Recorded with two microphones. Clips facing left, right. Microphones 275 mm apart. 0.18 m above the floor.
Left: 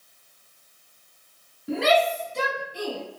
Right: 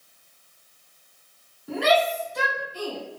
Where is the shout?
25° left (ahead or behind), 1.4 m; by 3.0 s 35° left (ahead or behind), 1.8 m.